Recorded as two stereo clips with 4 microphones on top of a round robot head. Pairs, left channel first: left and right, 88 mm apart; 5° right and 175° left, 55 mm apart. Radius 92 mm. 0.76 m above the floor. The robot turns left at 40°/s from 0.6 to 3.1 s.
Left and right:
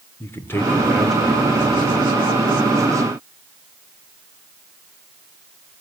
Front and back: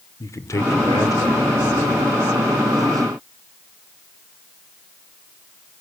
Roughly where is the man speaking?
Ahead left.